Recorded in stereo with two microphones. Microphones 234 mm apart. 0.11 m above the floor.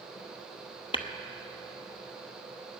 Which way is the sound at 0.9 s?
20° left (ahead or behind).